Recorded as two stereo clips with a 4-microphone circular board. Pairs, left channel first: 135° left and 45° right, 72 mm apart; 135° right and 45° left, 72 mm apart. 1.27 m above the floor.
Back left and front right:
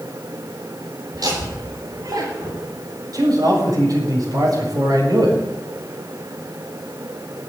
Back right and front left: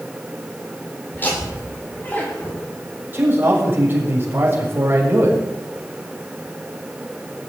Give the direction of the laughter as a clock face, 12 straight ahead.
2 o'clock.